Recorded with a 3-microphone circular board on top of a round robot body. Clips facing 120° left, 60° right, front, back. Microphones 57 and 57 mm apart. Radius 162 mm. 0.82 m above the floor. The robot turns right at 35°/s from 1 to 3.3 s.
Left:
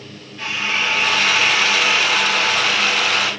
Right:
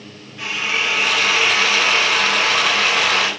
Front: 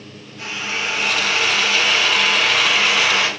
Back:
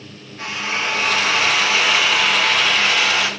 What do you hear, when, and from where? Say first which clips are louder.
0.4 s a drill: even, back 2 dB; 140° right, 7.5 m; by 3.3 s 60° right, 7.5 m